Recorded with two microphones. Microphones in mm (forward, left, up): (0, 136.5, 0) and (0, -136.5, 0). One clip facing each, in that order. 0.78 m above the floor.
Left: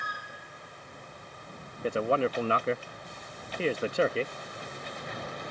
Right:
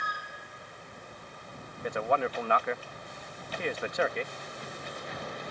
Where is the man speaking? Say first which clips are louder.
Left 3 dB; 35° left (ahead or behind).